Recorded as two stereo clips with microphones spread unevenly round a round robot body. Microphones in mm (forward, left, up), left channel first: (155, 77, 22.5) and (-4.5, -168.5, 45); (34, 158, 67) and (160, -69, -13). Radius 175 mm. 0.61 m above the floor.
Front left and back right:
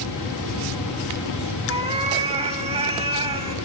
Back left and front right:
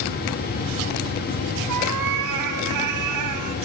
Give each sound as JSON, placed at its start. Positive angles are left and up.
{"t": 1.7, "sound": "a cat meowing", "azimuth_deg": -55, "distance_m": 1.3}